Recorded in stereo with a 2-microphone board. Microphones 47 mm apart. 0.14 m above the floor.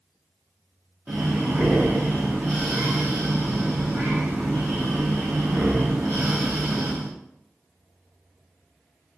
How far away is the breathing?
About 3 m.